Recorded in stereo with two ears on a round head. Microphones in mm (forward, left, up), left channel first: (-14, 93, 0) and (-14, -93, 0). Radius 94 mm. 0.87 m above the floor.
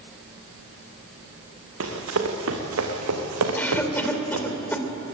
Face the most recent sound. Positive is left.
turn(degrees=10)  # may be behind; listen again after turning